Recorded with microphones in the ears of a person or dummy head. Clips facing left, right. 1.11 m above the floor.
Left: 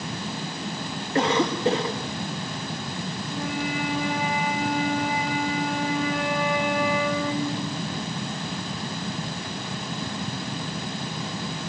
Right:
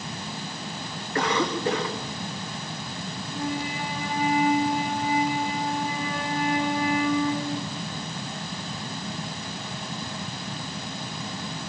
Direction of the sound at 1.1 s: 25° left (ahead or behind).